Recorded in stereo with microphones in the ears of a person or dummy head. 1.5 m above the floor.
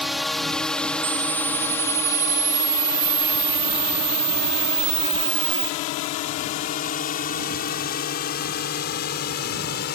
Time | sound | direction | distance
0.0 | a drone | centre (ahead or behind) | ?
1.0 | a camera shutter | 60° right (ahead or behind) | ?